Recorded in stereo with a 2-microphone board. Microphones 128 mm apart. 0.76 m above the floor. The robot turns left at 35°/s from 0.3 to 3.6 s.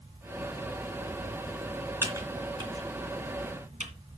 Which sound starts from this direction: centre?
Typing on a keyboard, at 2.0 s.